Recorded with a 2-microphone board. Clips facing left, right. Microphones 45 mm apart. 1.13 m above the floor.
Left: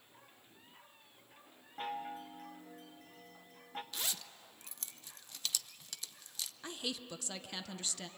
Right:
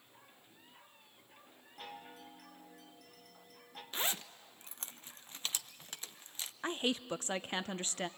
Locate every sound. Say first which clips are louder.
1.8 s a chime: left 8 dB; 30° left (ahead or behind), 1.3 m
3.9 s a zipper: right 10 dB; 30° right (ahead or behind), 0.5 m
6.6 s a woman speaking: right 8 dB; 35° right (ahead or behind), 0.7 m